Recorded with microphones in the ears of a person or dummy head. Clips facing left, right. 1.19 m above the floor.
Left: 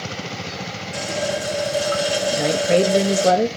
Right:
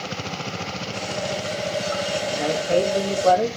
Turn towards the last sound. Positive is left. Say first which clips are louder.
# left 3 dB
turn(degrees=30)  # may be behind; listen again after turning